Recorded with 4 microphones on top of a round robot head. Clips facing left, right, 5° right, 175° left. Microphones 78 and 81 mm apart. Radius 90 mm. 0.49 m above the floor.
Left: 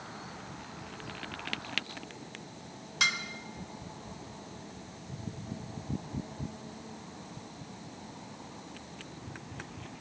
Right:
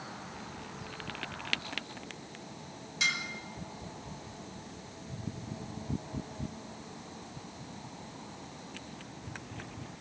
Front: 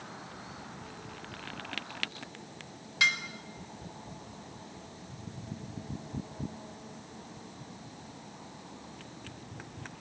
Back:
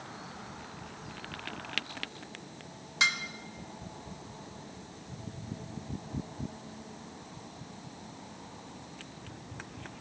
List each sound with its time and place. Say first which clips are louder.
3.0 s dishes clattering: left 2 dB, front 1 dB; 110° left, 1.3 m